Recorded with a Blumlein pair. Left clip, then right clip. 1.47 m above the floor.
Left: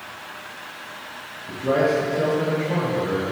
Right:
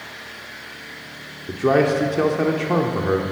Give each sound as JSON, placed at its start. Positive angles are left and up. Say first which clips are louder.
{"t": 1.5, "sound": "a man speaking", "louder": "right 3 dB", "azimuth_deg": -30, "distance_m": 0.6}